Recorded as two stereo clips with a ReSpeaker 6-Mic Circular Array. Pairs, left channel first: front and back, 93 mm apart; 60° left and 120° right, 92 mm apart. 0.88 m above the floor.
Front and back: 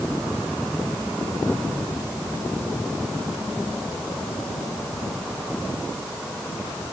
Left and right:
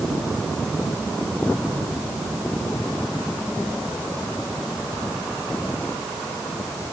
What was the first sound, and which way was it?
Only background noise.